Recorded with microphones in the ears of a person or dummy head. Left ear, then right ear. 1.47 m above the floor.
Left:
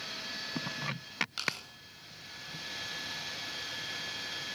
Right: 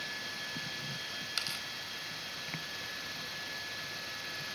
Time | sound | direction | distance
1.4 | tearing paper | 25° right (ahead or behind) | 5.5 m